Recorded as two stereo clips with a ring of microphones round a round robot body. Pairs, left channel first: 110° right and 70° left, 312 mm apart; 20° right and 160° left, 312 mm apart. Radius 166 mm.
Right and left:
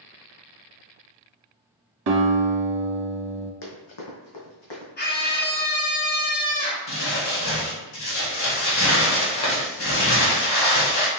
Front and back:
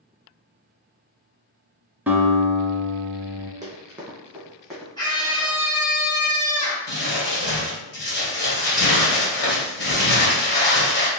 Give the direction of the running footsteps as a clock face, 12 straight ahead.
4 o'clock.